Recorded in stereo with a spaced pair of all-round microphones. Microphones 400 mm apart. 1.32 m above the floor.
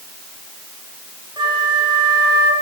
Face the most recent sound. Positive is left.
turn(degrees=-10)  # may be behind; listen again after turning